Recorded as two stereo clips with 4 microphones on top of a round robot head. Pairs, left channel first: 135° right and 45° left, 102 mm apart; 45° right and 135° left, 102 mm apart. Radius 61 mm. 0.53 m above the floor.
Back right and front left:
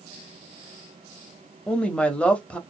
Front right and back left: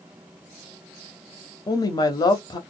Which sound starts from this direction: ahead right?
A woman speaking, at 1.7 s.